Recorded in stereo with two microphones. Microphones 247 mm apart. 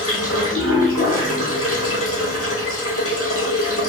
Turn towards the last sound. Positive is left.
turn(degrees=65)  # may be behind; listen again after turning